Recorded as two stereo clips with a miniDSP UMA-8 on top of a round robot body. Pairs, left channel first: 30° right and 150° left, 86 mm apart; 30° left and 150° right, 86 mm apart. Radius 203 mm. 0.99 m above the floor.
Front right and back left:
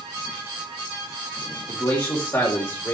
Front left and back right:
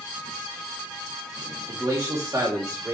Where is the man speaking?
85° right, 3 m.